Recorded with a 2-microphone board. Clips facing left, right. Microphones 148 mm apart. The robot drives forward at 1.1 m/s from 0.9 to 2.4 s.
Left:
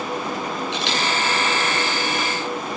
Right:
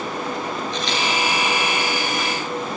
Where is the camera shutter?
80° left, 7 m; by 1.0 s 85° left, 7 m.